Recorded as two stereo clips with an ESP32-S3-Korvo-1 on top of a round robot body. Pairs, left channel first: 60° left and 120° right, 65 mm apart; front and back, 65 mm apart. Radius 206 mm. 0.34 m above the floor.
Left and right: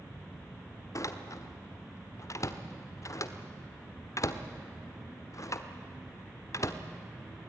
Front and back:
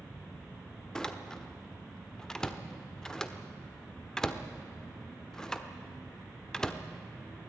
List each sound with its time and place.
0.9 s a door slam: 75° left, 1.5 m